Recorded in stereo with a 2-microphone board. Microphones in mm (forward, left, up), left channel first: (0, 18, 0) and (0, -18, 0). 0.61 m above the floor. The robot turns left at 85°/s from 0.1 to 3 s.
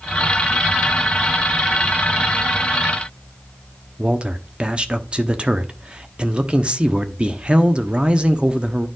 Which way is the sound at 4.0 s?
25° right (ahead or behind).